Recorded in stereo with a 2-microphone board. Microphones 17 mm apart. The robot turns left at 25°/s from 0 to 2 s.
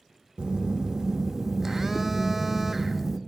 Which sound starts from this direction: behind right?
A phone buzzing, at 0.4 s.